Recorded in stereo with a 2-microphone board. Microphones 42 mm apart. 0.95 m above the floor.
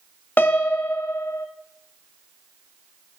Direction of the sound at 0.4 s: 50° left (ahead or behind).